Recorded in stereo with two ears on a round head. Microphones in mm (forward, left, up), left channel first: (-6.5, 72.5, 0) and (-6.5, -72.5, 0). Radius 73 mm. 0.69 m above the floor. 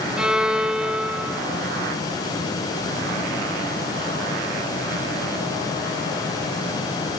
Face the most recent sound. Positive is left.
turn(degrees=-5)  # may be behind; listen again after turning